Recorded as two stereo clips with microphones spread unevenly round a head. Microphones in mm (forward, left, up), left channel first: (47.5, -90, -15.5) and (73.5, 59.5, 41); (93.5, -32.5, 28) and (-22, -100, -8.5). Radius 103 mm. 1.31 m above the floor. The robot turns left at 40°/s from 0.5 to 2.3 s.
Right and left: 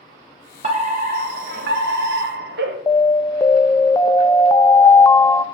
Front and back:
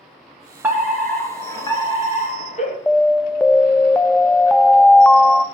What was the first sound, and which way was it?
A fire alarm, 145° left.